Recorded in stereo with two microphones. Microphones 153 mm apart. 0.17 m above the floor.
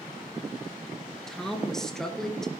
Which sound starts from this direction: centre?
A woman speaking, at 1.3 s.